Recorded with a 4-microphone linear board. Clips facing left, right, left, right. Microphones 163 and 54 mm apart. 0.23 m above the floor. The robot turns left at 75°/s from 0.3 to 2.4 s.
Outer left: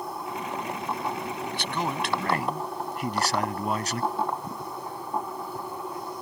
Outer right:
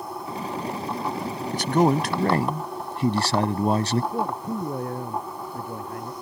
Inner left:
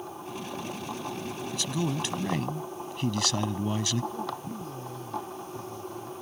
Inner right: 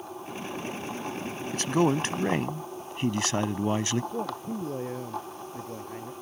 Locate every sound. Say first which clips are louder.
1.5 s a man speaking: outer right 13 dB, inner right 8 dB; 70° right; by 4.0 s 135° right
4.1 s a man speaking: outer right 3 dB, inner right 2 dB; 65° right (ahead or behind)